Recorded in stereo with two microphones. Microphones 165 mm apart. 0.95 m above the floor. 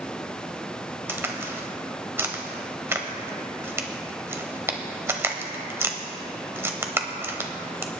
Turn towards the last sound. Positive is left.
turn(degrees=-15)  # may be behind; listen again after turning